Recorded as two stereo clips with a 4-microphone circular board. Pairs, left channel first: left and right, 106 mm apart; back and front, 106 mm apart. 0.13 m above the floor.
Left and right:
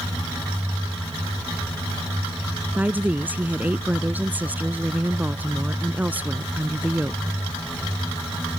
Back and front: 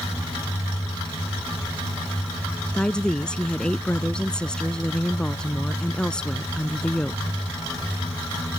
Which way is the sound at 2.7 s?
115° right.